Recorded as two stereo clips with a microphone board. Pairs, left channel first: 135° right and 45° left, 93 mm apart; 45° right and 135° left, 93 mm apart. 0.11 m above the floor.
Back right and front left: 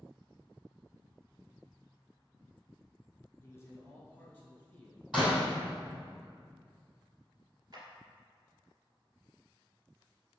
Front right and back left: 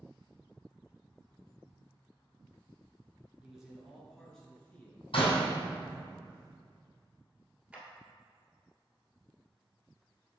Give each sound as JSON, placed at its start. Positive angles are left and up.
{"t": 3.4, "sound": "a man speaking", "azimuth_deg": -150, "distance_m": 1.7}
{"t": 5.1, "sound": "a door slam", "azimuth_deg": -40, "distance_m": 2.0}
{"t": 7.7, "sound": "a clap", "azimuth_deg": 60, "distance_m": 1.8}